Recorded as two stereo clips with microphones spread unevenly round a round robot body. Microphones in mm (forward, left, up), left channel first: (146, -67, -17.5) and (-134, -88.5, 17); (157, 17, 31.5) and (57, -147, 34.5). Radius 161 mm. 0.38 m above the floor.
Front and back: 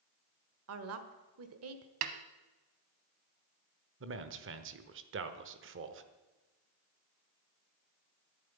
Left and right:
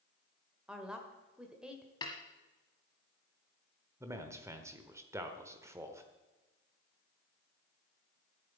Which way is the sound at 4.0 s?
170° left.